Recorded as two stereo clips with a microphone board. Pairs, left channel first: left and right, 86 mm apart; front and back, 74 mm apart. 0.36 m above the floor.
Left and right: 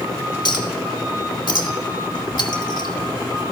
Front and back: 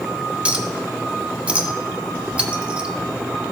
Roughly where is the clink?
Left.